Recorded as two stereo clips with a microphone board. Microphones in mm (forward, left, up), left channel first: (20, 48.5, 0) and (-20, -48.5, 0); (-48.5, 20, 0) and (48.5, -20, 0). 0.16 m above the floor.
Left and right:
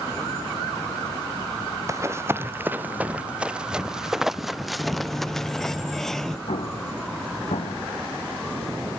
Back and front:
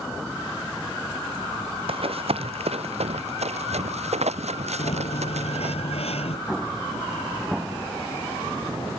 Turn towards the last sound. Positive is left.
turn(degrees=65)